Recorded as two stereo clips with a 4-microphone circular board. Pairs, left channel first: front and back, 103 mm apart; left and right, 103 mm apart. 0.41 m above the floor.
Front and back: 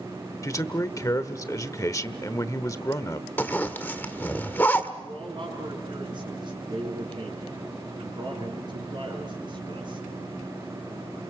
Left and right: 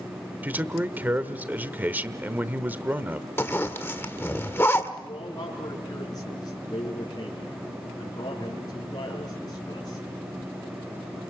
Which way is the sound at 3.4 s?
50° left.